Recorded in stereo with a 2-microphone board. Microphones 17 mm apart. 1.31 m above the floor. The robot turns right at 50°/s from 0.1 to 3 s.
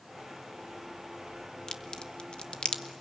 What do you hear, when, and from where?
1.7 s a crack: 45° left (ahead or behind), 1.1 m; by 2.8 s 80° left, 1.1 m